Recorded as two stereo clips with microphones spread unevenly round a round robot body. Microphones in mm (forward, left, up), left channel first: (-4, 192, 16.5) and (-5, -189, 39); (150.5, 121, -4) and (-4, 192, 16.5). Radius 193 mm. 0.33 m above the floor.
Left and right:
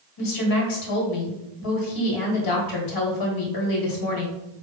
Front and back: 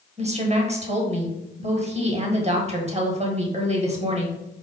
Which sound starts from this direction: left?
A woman speaking, at 0.2 s.